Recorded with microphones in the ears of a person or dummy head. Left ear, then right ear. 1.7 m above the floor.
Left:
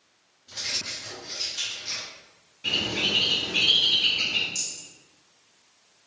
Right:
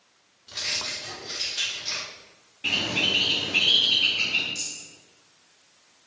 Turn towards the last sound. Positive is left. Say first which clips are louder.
# left 1 dB
turn(degrees=25)  # may be behind; listen again after turning